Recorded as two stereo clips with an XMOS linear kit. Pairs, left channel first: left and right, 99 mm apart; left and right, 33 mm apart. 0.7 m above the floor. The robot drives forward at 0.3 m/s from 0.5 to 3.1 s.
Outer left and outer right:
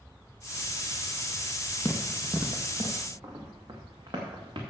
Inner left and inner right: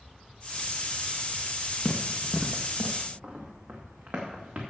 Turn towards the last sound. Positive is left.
turn(degrees=-50)  # may be behind; listen again after turning